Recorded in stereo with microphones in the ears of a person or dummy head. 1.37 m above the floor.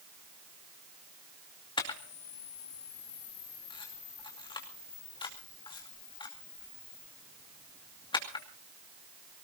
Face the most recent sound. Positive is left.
turn(degrees=25)  # may be behind; listen again after turning